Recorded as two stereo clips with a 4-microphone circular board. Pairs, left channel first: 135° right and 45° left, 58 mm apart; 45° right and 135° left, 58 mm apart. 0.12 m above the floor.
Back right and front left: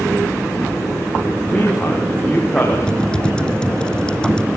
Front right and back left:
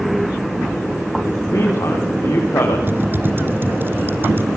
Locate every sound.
1.5 s a man speaking: 75° right, 6 m
2.9 s typing on a keyboard: 155° left, 1.7 m